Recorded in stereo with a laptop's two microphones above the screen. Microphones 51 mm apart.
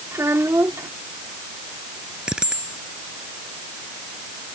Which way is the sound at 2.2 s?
15° right (ahead or behind).